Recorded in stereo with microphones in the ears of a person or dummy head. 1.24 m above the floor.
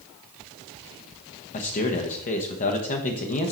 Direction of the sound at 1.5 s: 35° left (ahead or behind).